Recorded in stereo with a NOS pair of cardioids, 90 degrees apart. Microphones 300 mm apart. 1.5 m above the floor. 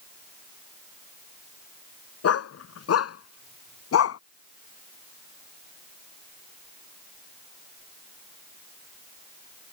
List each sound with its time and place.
2.2 s a dog barking: 55° left; by 4.2 s 60° left